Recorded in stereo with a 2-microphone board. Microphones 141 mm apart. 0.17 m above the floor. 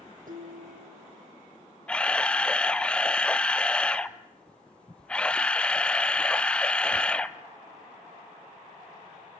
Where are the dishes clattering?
75° right (ahead or behind), 5 m.